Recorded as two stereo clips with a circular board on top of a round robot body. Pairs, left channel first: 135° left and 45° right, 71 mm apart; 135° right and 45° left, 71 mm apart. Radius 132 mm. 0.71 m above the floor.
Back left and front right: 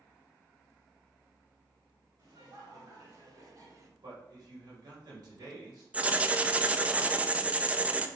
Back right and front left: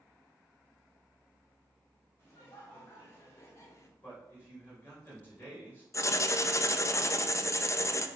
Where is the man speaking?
75° right, 3.5 m.